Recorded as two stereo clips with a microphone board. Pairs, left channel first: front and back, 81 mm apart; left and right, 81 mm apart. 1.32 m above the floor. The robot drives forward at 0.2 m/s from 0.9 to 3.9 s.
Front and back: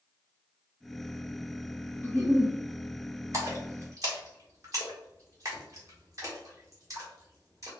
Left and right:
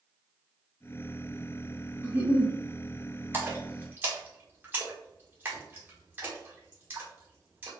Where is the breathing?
No breathing in this recording.